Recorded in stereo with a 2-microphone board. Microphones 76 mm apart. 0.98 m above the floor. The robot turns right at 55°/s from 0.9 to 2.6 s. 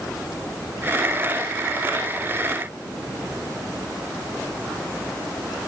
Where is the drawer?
No drawer in this recording.